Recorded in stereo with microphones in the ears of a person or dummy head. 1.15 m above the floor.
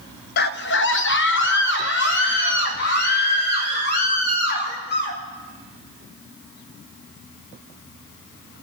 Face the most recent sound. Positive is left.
turn(degrees=55)  # may be behind; listen again after turning